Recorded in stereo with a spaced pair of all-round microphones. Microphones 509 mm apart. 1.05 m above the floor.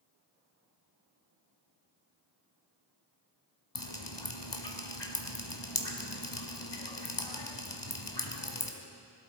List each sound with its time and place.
3.8 s dripping: 55° left (ahead or behind), 1.4 m